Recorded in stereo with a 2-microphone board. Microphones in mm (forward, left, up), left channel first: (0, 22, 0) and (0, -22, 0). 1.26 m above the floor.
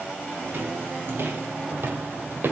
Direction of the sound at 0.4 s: 55° right (ahead or behind).